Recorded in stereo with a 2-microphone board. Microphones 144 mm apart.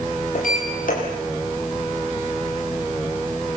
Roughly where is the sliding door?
Left.